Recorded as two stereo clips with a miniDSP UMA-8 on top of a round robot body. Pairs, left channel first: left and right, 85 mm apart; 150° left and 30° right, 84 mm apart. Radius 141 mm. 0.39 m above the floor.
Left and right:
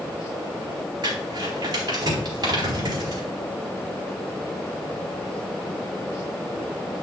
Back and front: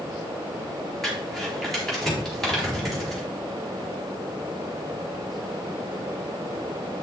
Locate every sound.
1.0 s crumpling: 125° right, 4.5 m